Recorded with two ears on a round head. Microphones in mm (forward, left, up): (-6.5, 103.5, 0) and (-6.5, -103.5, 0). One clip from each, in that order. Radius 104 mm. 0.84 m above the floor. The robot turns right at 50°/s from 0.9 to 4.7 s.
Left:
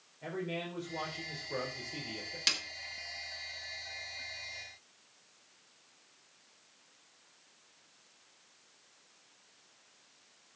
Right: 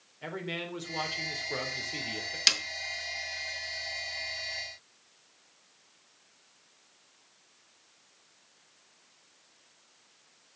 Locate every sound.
0.2 s a man speaking: 120° right, 3.5 m; by 2.4 s 45° right, 3.5 m
2.5 s a snare drum: 25° right (ahead or behind), 1.1 m; by 2.6 s 20° right (ahead or behind), 1.1 m